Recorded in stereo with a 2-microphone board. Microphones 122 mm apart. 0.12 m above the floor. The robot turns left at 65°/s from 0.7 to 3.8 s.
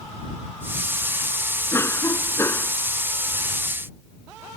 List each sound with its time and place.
1.7 s a cough: 20° left (ahead or behind)